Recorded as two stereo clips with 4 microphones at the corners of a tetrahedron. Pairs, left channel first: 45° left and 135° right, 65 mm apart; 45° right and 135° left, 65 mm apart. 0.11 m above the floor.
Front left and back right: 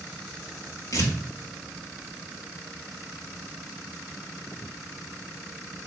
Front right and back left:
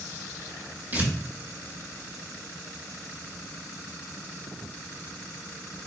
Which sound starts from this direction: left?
Tearing paper, at 0.9 s.